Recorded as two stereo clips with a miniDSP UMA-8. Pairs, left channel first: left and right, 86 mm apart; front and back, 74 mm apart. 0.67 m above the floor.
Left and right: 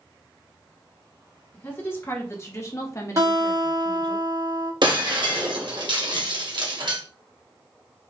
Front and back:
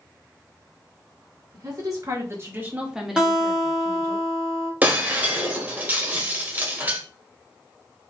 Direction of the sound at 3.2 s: 105° right.